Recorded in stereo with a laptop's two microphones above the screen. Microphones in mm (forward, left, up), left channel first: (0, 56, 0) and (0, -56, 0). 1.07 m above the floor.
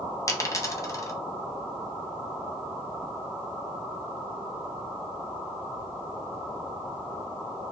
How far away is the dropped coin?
About 0.5 m.